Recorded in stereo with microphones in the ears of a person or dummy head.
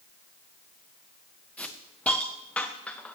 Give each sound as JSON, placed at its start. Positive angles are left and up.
{"t": 1.6, "sound": "a hiss", "side_deg": 10, "distance_m": 0.6}